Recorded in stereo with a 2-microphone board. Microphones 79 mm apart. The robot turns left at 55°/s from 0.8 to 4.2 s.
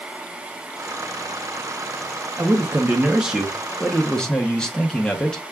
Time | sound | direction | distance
2.4 | a man speaking | 20° right (ahead or behind) | 0.6 m